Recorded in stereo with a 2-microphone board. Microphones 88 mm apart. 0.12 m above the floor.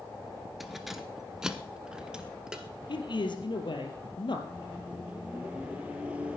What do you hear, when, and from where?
0.6 s keys jangling: centre (ahead or behind), 1.5 m; by 3.5 s 5° right (ahead or behind), 3 m
2.9 s a man speaking: 60° left (ahead or behind), 2.5 m
4.5 s a microwave: 15° right (ahead or behind), 2 m